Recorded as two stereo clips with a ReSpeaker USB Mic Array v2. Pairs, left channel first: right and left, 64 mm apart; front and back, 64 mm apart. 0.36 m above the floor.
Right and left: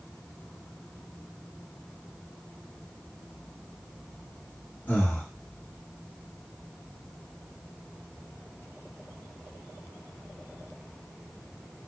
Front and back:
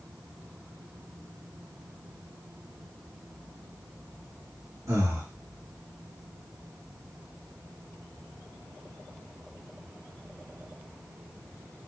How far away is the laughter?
I don't hear laughter.